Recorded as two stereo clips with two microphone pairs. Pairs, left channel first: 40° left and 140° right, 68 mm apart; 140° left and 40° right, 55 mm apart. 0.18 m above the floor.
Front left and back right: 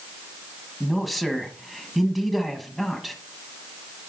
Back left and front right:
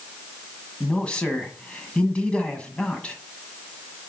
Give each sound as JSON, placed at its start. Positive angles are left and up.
{"t": 0.8, "sound": "a man speaking", "azimuth_deg": 130, "distance_m": 1.2}